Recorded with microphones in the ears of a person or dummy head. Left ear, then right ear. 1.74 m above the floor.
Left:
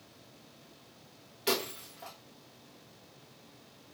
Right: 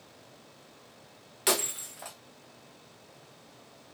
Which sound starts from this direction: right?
Breaking glass, at 1.5 s.